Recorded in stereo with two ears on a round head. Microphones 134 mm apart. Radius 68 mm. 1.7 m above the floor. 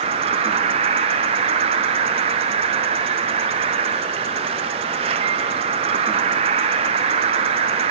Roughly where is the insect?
Right.